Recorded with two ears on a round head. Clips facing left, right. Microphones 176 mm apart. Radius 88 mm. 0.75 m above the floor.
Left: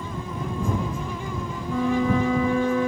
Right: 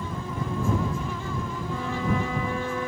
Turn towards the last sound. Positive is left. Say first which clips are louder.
# left 8 dB
turn(degrees=70)  # may be behind; listen again after turning